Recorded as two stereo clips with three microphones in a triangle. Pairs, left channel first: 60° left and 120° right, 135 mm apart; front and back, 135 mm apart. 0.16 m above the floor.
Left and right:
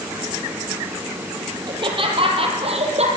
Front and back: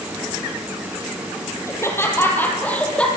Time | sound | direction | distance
1.7 | laughter | 70° right | 5.5 m